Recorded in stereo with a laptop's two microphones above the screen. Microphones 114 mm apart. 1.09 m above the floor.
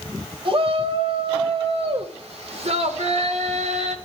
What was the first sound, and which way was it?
A shout, 55° right (ahead or behind).